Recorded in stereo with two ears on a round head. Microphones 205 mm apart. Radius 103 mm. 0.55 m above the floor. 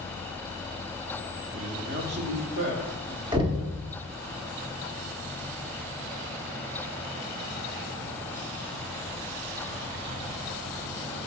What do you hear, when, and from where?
1.5 s a man speaking: 30° right (ahead or behind), 1.0 m; by 3.2 s 60° right (ahead or behind), 2.5 m
3.3 s knocking: 20° right (ahead or behind), 0.8 m